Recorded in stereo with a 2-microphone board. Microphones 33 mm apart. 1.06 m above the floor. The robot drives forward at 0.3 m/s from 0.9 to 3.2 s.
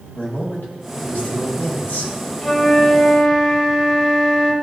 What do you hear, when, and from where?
0.1 s a man speaking: 75° left (ahead or behind), 2.0 m; by 2.1 s 85° left, 1.9 m
2.4 s a flute: 25° left (ahead or behind), 1.3 m; by 4.5 s 20° left (ahead or behind), 1.5 m